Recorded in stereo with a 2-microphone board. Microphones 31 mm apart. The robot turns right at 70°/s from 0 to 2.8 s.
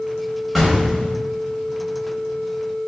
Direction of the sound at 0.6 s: 5° right.